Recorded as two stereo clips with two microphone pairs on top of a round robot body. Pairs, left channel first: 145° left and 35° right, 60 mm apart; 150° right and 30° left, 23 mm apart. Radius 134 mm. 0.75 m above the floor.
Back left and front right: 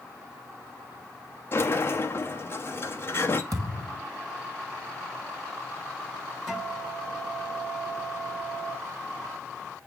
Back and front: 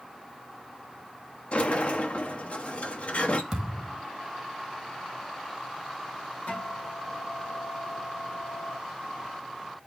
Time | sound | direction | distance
1.5 | a sliding door | 165° right | 1.2 m
3.5 | a thud | 10° right | 1.4 m
6.5 | a guitar | 125° right | 3.5 m